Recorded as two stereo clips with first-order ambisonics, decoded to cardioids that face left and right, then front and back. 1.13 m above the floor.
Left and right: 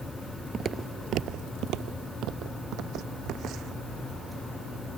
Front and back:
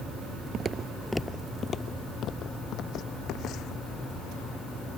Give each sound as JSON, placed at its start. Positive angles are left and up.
{"t": 0.5, "sound": "footsteps", "azimuth_deg": -145}